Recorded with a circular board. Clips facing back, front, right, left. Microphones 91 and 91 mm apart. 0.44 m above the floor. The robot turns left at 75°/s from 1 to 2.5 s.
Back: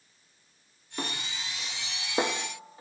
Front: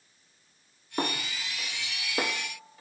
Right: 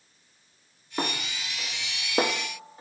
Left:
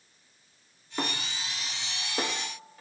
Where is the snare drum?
25° right, 0.7 m; by 2.8 s 140° right, 0.7 m.